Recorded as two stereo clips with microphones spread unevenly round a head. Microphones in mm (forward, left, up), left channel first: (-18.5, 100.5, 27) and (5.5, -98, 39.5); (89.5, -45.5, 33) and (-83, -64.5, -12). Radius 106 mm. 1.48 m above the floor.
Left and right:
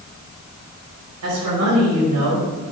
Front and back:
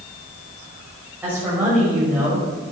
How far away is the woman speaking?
About 6 m.